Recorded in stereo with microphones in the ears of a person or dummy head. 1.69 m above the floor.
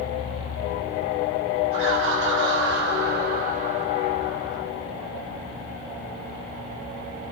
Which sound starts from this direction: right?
Laughter, at 1.7 s.